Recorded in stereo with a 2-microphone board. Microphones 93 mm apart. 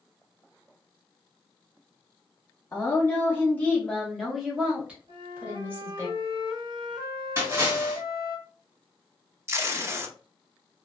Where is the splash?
30° right (ahead or behind), 1.7 m.